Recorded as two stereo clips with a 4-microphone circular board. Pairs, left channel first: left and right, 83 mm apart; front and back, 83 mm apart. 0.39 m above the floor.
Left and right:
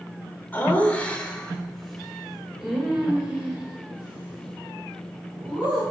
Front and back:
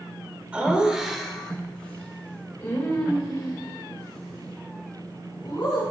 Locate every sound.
0.5 s laughter: 125° left, 1.4 m; by 5.8 s 25° right, 3 m